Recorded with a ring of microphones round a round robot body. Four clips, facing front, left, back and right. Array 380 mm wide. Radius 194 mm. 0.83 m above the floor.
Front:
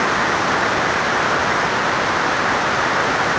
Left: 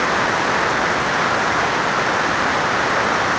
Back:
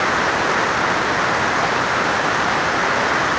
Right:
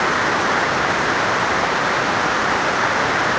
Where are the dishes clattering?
No dishes clattering in this recording.